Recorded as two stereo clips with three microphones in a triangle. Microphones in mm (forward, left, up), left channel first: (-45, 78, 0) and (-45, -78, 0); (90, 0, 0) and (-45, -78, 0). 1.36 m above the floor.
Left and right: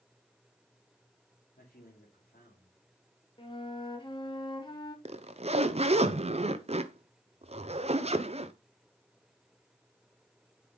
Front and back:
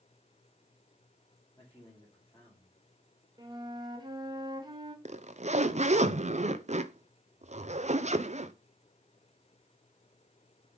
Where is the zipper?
125° right, 0.6 m.